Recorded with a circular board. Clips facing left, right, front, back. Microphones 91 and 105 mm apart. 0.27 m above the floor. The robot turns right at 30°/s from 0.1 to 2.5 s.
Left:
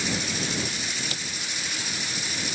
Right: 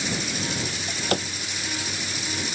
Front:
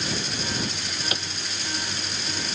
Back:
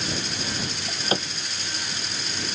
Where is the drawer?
135° right; by 1.3 s 120° right.